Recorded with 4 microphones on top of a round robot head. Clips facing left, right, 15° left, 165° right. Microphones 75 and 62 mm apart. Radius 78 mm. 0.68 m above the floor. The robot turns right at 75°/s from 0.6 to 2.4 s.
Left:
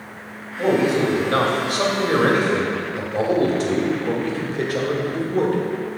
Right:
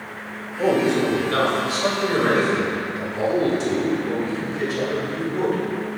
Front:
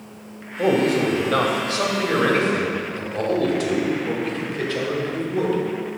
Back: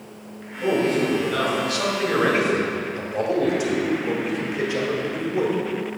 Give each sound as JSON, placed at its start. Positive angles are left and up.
{"t": 0.6, "sound": "a man speaking", "azimuth_deg": -20, "distance_m": 2.0}